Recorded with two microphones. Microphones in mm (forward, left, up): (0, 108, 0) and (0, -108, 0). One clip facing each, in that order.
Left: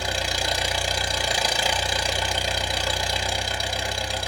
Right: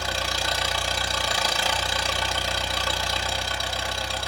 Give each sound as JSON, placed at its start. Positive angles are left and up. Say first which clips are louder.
{"t": 0.0, "sound": "an engine running", "louder": "left 2 dB", "side_deg": 15, "distance_m": 0.9}